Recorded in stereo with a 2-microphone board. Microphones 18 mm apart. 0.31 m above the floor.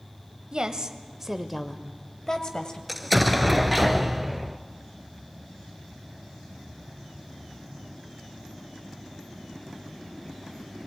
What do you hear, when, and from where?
0.5 s a woman speaking: 45° right (ahead or behind), 1.4 m; by 2.8 s 45° left (ahead or behind), 1.6 m
2.9 s an explosion: centre (ahead or behind), 0.9 m